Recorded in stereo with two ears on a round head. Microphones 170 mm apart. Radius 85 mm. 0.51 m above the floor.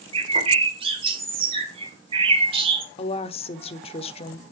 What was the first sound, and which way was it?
A bird, 30° right (ahead or behind).